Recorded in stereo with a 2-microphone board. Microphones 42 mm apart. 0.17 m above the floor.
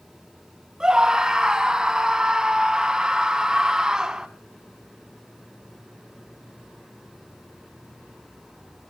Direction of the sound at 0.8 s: 15° right (ahead or behind).